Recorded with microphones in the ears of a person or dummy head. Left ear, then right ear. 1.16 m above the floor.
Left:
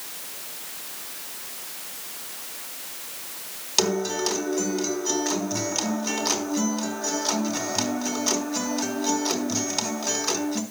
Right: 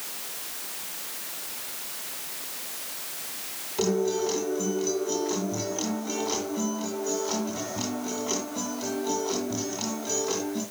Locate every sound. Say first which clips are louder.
3.8 s a guitar: left 2 dB; 75° left (ahead or behind), 3.5 m